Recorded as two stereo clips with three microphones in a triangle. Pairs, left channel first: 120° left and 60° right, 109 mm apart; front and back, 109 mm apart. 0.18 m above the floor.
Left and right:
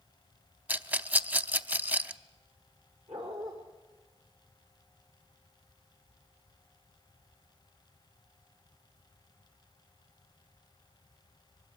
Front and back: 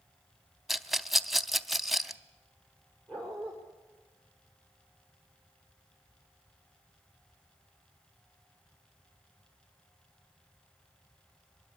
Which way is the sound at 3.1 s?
80° right.